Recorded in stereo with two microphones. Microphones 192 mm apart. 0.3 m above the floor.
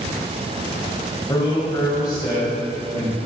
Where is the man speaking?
20° left (ahead or behind), 1.8 m.